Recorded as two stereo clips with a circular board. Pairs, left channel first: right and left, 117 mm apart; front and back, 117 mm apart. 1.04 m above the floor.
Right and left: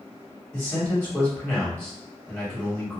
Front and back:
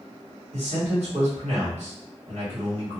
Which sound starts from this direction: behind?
A man speaking, at 0.5 s.